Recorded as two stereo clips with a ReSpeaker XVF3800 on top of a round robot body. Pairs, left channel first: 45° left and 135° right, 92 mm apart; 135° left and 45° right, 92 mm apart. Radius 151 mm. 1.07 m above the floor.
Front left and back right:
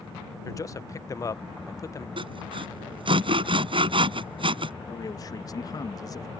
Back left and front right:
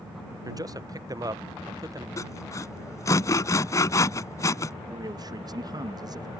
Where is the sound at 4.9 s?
Straight ahead.